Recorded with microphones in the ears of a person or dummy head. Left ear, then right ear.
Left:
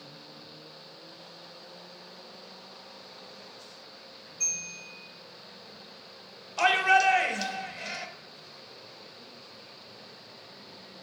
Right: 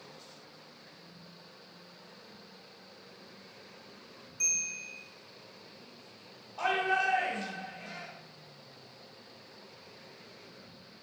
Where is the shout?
45° left (ahead or behind), 0.6 m.